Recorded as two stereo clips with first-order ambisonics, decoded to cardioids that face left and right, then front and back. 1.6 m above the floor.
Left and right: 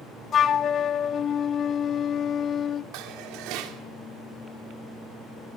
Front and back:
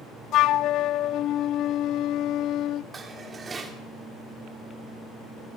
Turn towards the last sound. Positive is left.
turn(degrees=-110)